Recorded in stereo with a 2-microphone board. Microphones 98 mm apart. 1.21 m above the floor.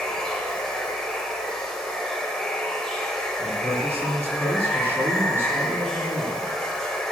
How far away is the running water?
About 1.7 m.